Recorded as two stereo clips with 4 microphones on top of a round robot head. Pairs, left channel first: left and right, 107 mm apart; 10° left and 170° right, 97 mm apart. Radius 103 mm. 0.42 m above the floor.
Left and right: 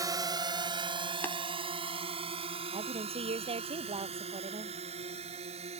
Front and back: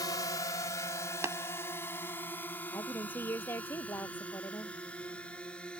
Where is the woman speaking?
60° right.